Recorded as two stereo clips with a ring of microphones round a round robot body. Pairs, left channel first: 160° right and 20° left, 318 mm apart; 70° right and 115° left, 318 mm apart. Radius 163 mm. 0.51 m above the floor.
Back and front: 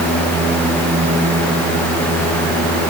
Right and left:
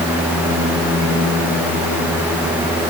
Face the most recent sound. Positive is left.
No sound to turn to.